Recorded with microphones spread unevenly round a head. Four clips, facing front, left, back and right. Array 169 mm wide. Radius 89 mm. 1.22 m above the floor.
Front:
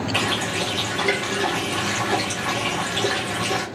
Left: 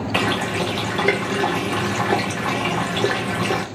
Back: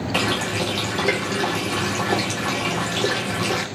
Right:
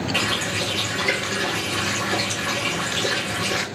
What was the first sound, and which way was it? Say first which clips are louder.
A running tap: left 4 dB, back 5 dB; 110° left.